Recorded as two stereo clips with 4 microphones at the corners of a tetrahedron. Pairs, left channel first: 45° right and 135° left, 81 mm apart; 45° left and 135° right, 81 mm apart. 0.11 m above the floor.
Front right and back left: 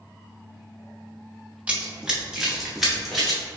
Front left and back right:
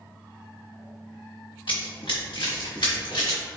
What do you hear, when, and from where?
1.7 s running footsteps: 60° left, 0.8 m; by 3.4 s 45° left, 1.8 m